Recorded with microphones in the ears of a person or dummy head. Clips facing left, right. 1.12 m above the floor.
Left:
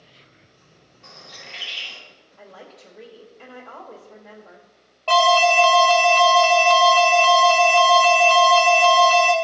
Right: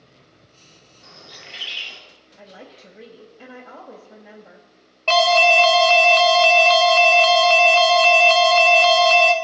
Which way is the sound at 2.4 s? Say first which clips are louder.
Right 1 dB; 15° right (ahead or behind).